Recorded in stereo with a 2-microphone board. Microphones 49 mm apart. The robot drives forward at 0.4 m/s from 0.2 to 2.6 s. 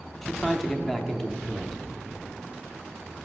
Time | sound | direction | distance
0.2 | a man speaking | 5° left (ahead or behind) | 0.8 m